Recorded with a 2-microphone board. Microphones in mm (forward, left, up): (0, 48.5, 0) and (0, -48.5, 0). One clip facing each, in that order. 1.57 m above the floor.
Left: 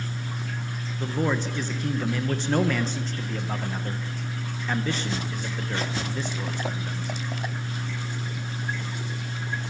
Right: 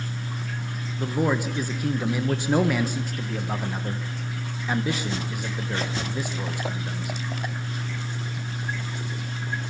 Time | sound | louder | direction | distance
1.0 | a man speaking | right 2 dB | 10° right (ahead or behind) | 1.3 m